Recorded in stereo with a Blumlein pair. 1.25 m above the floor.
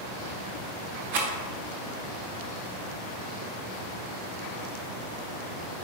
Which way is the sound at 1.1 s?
50° right.